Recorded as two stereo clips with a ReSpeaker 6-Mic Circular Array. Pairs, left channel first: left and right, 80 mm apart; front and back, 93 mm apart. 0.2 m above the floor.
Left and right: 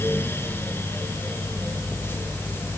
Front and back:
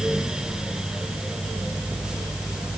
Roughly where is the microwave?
I don't hear a microwave.